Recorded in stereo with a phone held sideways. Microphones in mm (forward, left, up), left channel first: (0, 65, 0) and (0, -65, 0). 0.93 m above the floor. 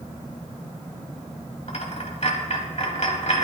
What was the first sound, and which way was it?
A dropped coin, 55° left (ahead or behind).